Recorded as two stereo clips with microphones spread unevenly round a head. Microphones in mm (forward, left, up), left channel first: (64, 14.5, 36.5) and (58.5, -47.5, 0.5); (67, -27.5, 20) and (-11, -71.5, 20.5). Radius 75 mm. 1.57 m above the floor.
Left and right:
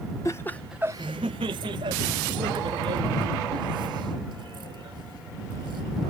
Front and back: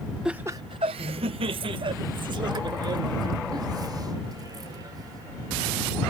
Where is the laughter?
125° left; by 6.1 s 105° right.